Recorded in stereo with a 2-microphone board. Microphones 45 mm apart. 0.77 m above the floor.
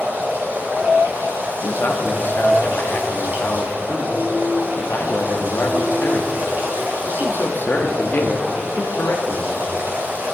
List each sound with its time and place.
0.0 s running water: 50° right (ahead or behind), 2 m
1.6 s a man speaking: 45° left (ahead or behind), 0.8 m